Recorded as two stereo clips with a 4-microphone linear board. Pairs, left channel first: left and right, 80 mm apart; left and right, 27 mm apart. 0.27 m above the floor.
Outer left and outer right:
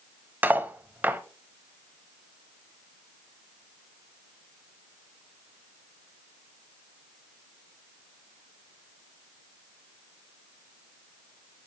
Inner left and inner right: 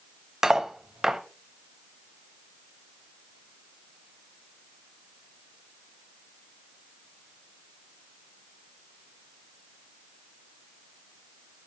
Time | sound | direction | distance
0.4 | cutlery clinking | 20° right (ahead or behind) | 0.6 m